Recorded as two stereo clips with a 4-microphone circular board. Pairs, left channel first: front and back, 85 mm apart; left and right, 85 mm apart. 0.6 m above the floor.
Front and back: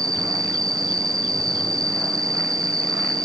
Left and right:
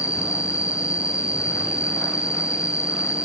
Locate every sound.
0.0 s an insect: 135° left, 3.5 m